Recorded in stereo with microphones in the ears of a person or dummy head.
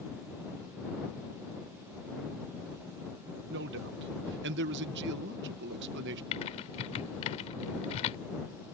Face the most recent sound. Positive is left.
turn(degrees=30)  # may be behind; listen again after turning